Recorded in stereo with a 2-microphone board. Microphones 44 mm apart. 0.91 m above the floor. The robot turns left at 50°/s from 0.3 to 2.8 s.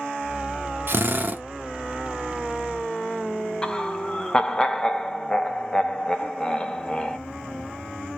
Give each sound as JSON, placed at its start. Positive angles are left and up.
{"t": 0.9, "sound": "a drill", "side_deg": -55, "distance_m": 0.7}
{"t": 3.6, "sound": "laughter", "side_deg": 20, "distance_m": 0.6}